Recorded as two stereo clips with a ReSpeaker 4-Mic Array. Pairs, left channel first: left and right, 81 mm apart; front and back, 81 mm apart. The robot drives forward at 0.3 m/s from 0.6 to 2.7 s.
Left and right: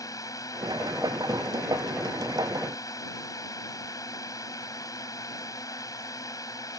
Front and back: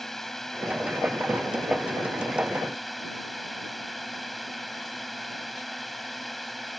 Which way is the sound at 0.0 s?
85° left.